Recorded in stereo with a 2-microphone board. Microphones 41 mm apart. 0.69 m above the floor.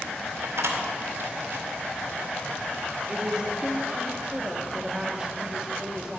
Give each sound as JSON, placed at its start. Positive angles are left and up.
{"t": 0.4, "sound": "a door slam", "side_deg": -75, "distance_m": 1.7}
{"t": 3.1, "sound": "a woman speaking", "side_deg": -15, "distance_m": 1.3}